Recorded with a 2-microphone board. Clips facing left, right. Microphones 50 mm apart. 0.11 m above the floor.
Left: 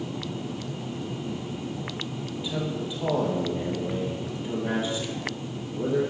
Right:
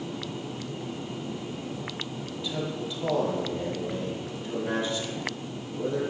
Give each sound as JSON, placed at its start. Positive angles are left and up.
{"t": 2.3, "sound": "a man speaking", "side_deg": 20, "distance_m": 2.5}